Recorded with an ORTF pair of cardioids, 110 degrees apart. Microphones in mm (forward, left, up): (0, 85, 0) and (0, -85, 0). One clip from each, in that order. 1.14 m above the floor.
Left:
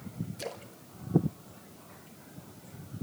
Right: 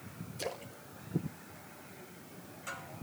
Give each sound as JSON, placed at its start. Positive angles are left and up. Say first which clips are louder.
{"t": 0.4, "sound": "a splash", "louder": "right 2 dB", "azimuth_deg": -5, "distance_m": 1.5}